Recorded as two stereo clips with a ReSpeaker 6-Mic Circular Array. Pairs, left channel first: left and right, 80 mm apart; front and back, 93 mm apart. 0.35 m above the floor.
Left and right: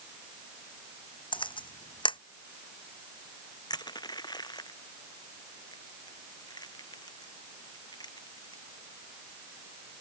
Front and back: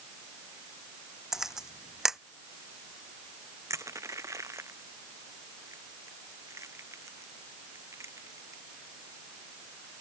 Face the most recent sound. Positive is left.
turn(degrees=120)